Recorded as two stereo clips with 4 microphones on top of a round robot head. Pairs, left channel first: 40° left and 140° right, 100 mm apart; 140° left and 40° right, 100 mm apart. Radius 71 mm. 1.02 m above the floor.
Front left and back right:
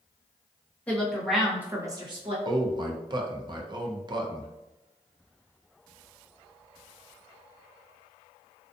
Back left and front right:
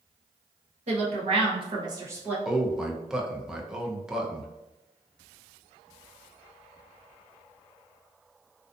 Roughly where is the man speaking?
Behind right.